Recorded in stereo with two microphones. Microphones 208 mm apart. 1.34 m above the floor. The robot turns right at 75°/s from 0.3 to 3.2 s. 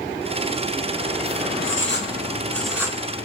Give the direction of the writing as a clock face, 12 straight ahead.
9 o'clock.